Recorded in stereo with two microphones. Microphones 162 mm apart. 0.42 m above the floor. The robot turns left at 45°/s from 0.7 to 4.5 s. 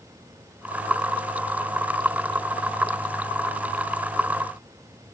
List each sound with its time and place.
Only background noise.